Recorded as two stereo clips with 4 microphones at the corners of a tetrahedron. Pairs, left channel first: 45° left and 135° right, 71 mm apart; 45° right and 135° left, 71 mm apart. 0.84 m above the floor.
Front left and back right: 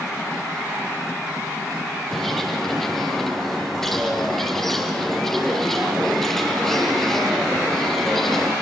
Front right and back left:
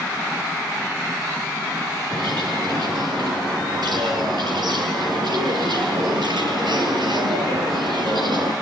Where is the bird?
130° left, 4.5 m.